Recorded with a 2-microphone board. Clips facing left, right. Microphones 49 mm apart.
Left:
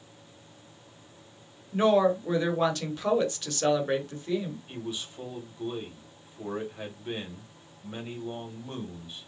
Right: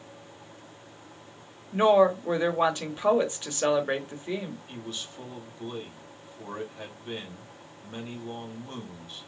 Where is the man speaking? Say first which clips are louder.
Left 2 dB; 10° left (ahead or behind), 1.7 m.